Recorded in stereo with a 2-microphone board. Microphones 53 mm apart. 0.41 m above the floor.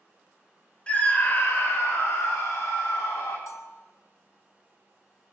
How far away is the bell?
About 1.7 m.